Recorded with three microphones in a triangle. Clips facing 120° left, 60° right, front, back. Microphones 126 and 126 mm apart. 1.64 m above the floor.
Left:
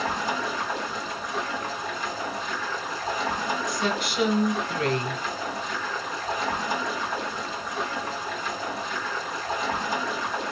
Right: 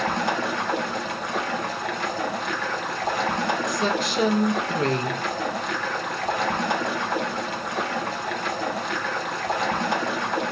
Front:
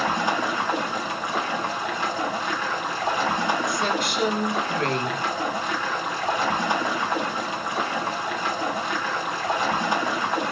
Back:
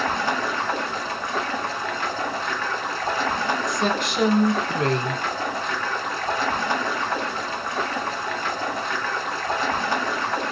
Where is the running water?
75° right, 1.3 m.